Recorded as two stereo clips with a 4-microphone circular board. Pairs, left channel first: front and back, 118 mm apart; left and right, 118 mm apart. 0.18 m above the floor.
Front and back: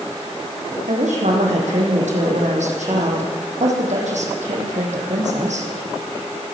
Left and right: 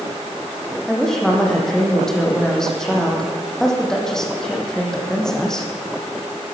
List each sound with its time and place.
0.9 s a woman speaking: 175° left, 6.5 m